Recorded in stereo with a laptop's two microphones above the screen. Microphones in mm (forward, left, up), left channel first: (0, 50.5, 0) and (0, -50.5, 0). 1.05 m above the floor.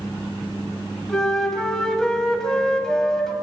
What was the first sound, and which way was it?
A flute, 5° left (ahead or behind).